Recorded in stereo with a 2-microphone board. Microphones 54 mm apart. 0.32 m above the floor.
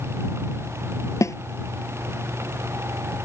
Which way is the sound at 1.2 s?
65° left (ahead or behind).